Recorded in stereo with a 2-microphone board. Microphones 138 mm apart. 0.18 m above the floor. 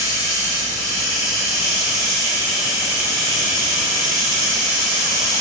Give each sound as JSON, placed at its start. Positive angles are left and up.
{"t": 0.0, "sound": "running water", "side_deg": 25, "distance_m": 2.0}